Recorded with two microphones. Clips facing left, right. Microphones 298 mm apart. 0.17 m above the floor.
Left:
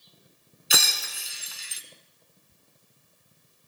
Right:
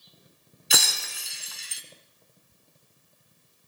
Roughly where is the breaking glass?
Centre.